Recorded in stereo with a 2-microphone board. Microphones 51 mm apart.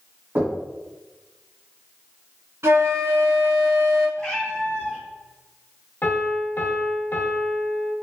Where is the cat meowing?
15° left (ahead or behind), 1.4 m.